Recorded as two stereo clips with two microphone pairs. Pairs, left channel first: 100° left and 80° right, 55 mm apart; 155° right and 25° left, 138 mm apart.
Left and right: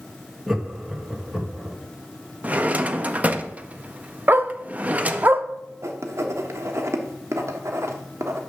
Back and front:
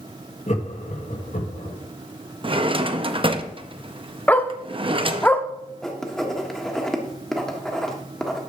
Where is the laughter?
165° right, 1.5 m.